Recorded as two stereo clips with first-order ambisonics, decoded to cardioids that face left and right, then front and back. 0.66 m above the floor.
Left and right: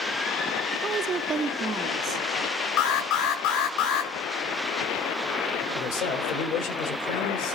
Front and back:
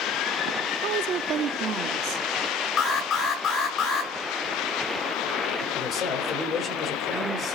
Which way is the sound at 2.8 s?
65° left.